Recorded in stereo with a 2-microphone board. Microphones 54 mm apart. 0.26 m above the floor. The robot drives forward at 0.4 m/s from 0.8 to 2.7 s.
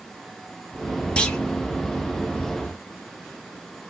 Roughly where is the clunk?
Centre.